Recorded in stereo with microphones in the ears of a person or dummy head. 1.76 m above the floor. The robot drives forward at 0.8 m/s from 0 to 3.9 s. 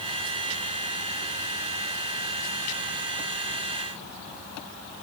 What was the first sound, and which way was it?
Only background noise.